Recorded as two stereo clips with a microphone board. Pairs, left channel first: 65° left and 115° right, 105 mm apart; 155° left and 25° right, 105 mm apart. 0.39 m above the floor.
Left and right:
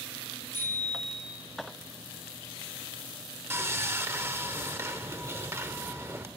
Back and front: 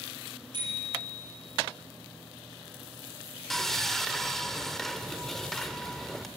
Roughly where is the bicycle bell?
Ahead right.